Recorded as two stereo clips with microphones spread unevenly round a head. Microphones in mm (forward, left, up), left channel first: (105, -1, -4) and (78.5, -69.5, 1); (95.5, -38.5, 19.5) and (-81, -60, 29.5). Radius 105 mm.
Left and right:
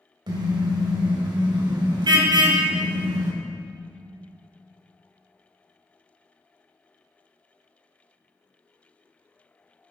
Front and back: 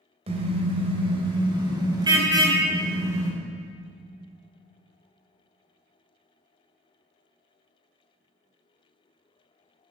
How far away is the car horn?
About 2.5 m.